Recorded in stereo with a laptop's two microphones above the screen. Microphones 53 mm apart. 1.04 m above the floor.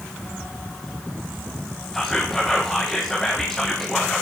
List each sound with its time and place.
1.9 s whispering: 5° left (ahead or behind), 0.5 m